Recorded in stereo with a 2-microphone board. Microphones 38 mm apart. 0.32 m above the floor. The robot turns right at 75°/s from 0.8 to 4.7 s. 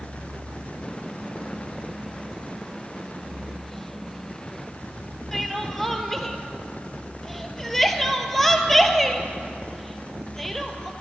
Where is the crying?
5° left (ahead or behind), 1.1 m.